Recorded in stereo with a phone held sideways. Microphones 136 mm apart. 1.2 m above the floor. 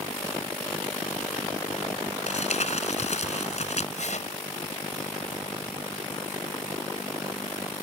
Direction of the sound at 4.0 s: 60° left (ahead or behind).